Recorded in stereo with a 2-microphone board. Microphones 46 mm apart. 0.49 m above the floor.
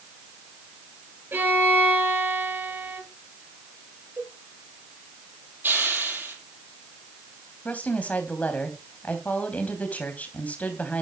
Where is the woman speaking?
35° left (ahead or behind), 3.5 m.